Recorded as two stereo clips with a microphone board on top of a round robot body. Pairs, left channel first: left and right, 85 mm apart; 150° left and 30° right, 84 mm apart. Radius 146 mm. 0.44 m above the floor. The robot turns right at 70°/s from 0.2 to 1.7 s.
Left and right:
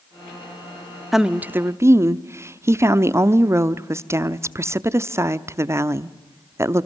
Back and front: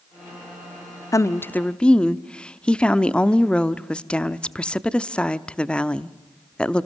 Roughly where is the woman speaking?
Behind.